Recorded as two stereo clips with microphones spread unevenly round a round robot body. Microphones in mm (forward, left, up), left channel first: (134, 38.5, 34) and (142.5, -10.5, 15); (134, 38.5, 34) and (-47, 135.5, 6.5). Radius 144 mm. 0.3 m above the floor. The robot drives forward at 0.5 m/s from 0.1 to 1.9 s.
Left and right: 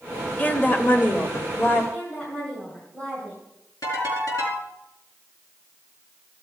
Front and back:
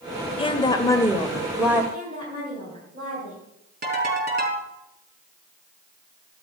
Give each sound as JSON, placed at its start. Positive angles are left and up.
{"t": 0.4, "sound": "a woman speaking", "azimuth_deg": 30, "distance_m": 1.2}
{"t": 1.9, "sound": "a woman speaking", "azimuth_deg": -155, "distance_m": 2.5}
{"t": 3.8, "sound": "a ringtone", "azimuth_deg": 115, "distance_m": 4.5}